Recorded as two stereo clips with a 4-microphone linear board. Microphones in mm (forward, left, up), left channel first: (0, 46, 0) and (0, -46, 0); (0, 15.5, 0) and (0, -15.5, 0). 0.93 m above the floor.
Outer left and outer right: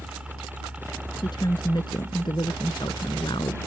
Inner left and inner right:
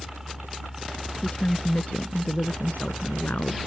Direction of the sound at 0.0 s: 10° right (ahead or behind).